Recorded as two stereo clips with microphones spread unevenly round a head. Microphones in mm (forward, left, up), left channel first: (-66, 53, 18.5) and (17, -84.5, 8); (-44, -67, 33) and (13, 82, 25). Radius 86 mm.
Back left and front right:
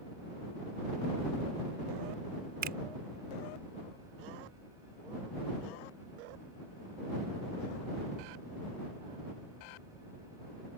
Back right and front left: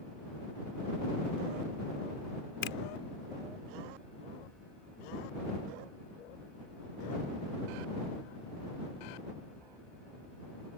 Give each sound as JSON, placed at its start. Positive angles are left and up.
{"t": 2.6, "sound": "a finger snap", "azimuth_deg": -85}